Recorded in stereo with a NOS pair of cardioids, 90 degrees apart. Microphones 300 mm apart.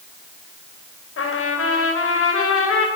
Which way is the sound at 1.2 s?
45° left.